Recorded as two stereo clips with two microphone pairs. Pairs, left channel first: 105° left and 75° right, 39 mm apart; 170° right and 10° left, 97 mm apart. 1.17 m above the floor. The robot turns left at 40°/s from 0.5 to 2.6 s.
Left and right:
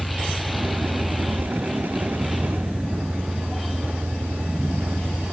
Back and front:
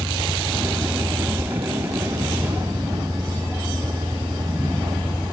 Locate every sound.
0.0 s a vehicle: 50° left; by 5.3 s 35° right